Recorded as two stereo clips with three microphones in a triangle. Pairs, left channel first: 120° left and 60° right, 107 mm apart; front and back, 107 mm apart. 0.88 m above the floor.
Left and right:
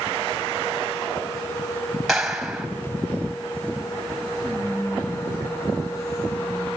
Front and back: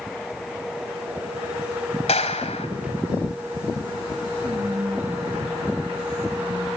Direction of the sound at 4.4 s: 175° right.